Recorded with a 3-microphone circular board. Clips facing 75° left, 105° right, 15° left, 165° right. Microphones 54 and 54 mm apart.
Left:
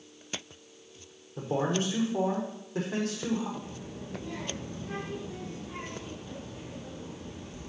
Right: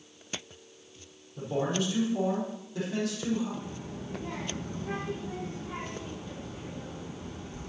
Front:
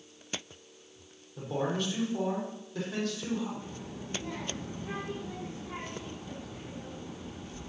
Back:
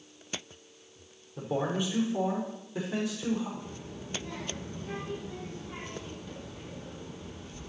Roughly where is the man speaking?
Behind left.